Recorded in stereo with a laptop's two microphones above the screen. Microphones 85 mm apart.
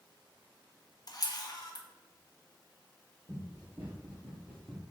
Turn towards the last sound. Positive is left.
turn(degrees=0)  # may be behind; listen again after turning